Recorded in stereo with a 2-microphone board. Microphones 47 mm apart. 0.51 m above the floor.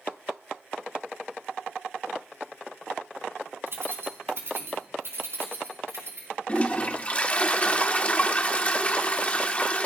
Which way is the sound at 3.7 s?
60° right (ahead or behind).